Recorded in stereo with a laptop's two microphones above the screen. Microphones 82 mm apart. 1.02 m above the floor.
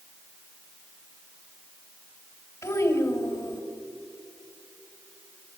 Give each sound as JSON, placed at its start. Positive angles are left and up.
{"t": 2.6, "sound": "a child speaking", "side_deg": 45, "distance_m": 4.0}